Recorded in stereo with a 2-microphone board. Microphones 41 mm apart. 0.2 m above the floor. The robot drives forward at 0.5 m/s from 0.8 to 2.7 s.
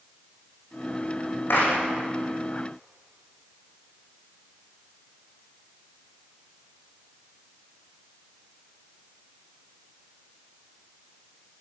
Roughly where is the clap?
Left.